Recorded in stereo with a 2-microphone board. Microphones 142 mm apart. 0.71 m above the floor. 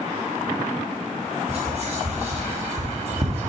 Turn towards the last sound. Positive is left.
turn(degrees=-50)  # may be behind; listen again after turning